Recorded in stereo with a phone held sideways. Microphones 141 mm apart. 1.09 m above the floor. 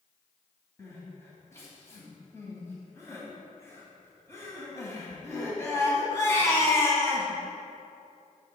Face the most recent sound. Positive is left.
turn(degrees=20)  # may be behind; listen again after turning